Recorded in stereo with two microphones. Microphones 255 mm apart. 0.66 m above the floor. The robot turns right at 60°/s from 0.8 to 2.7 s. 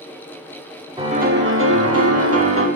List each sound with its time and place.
1.0 s a piano: 160° right, 1.0 m; by 2.7 s 60° right, 1.0 m